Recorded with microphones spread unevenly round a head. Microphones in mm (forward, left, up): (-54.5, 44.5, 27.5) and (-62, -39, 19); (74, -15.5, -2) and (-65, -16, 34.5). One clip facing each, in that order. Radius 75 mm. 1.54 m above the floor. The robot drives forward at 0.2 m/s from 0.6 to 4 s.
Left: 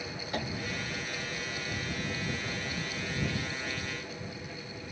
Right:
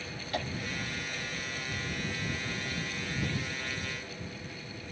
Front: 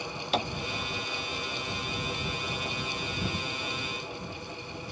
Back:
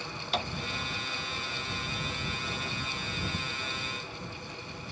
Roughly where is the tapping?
Ahead.